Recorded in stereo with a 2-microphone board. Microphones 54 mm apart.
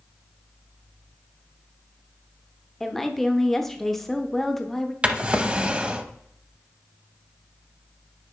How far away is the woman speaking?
About 0.7 m.